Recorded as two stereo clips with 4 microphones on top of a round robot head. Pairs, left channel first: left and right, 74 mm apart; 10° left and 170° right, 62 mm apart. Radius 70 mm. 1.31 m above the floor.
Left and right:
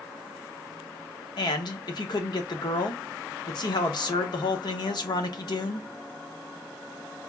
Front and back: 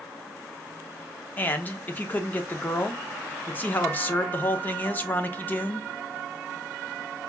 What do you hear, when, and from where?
1.4 s a man speaking: 75° left, 0.7 m